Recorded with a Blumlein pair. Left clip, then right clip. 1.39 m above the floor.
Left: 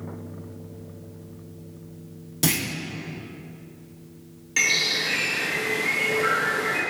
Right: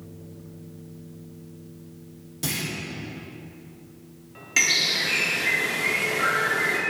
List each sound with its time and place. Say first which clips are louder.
2.4 s a clunk: left 5 dB; 65° left, 1.2 m
4.6 s a bird: right 1 dB; 15° right, 1.8 m